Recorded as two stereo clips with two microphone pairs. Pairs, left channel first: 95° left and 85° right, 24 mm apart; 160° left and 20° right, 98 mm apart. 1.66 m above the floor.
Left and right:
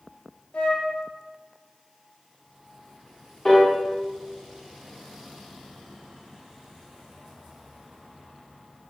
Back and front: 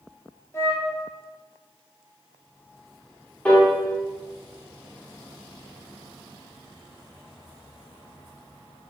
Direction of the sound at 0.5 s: 95° left.